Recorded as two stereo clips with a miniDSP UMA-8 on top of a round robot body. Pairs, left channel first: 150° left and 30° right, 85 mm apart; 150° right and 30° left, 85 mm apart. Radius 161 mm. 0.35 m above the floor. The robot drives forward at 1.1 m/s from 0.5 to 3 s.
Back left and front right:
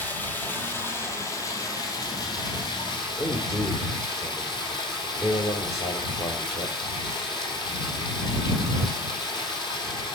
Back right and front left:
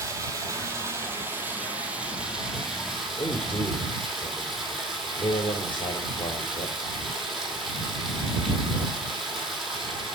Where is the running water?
85° left, 4 m; by 10.2 s 120° left, 4.5 m.